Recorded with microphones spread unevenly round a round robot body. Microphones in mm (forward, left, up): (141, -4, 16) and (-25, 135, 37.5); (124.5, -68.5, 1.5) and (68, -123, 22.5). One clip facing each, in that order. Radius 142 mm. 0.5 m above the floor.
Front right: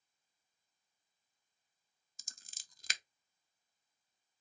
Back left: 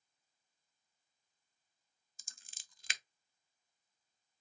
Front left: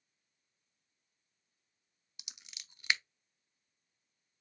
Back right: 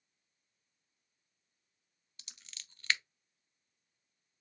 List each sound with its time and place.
2.2 s scissors: 15° right, 0.7 m